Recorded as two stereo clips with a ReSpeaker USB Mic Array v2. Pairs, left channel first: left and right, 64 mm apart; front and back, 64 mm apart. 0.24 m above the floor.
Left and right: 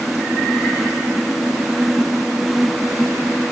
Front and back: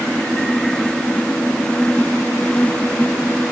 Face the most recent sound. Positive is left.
No sound to turn to.